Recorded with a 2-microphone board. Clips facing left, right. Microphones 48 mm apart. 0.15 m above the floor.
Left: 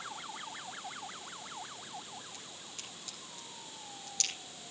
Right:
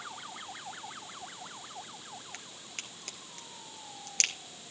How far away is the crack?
About 1.5 m.